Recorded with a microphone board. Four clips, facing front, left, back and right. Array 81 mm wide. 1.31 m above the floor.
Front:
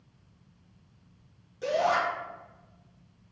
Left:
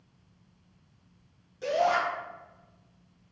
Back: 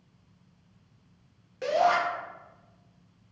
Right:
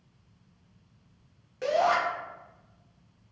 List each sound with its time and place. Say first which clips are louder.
1.6 s a shout: right 1 dB, back 2 dB; 130° right, 0.8 m